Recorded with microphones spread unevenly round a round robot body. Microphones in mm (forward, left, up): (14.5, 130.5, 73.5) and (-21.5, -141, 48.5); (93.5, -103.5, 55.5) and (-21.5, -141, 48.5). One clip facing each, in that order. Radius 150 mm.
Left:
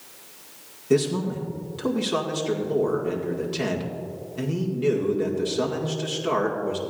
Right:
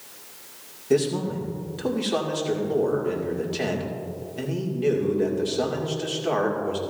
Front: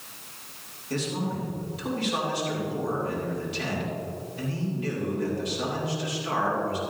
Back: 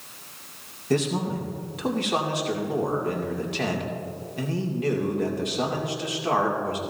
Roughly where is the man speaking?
Behind.